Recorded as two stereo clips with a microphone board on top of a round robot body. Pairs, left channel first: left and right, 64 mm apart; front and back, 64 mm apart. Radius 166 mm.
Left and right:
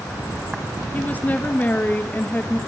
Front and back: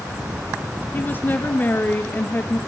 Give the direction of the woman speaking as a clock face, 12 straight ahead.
11 o'clock.